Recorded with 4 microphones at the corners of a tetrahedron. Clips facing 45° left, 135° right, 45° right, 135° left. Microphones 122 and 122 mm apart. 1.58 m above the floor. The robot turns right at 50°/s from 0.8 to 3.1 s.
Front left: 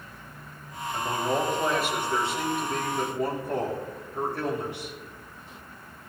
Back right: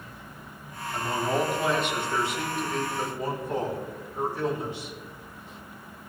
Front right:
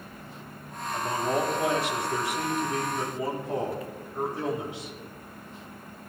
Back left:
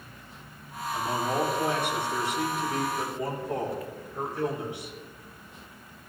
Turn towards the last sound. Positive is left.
turn(degrees=25)